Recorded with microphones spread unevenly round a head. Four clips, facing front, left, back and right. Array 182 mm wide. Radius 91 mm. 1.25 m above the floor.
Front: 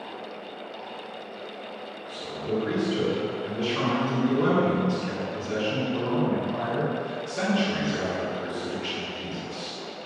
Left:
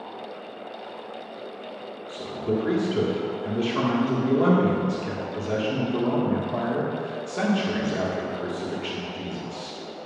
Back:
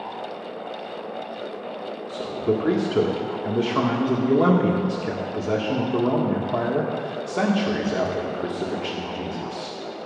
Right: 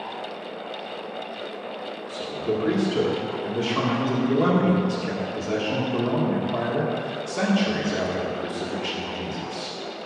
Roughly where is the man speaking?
Behind.